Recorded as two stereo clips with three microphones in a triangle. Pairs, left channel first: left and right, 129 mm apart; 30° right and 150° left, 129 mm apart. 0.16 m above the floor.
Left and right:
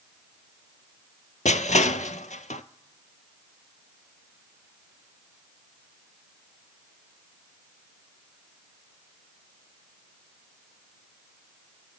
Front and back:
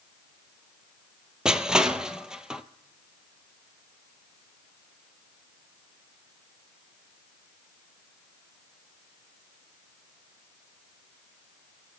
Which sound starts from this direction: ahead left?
Crushing, at 1.4 s.